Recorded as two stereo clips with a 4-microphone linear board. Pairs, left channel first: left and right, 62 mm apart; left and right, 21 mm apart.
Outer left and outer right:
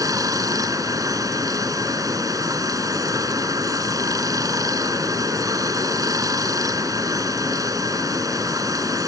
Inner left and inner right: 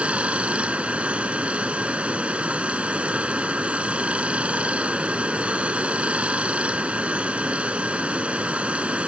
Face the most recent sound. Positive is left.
turn(degrees=-70)  # may be behind; listen again after turning